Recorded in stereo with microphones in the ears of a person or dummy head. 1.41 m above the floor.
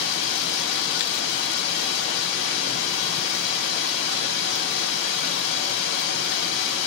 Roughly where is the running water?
Left.